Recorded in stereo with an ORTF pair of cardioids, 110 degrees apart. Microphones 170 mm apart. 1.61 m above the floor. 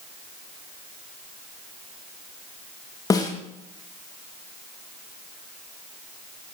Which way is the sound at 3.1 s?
20° left.